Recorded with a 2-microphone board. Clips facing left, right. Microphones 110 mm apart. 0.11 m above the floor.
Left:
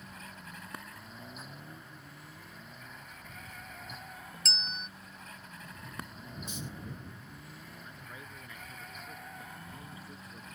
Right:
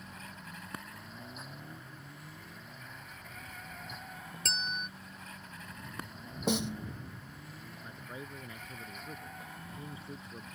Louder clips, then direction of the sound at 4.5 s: Right 4 dB; 55° right (ahead or behind).